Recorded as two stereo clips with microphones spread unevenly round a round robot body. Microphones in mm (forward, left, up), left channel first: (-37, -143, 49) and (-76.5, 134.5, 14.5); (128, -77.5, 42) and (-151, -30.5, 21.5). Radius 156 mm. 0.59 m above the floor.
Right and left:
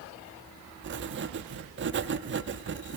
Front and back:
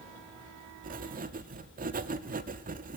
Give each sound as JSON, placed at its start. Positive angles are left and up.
{"t": 0.8, "sound": "writing", "azimuth_deg": 120, "distance_m": 0.6}